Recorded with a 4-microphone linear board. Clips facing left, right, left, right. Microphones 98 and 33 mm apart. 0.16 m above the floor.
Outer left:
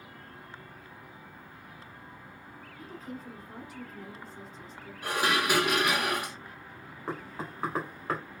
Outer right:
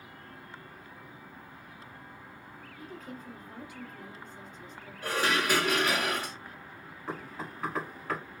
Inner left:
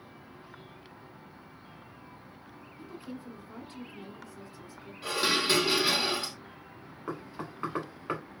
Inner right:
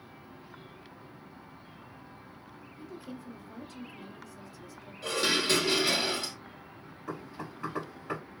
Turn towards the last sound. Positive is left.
turn(degrees=35)  # may be behind; listen again after turning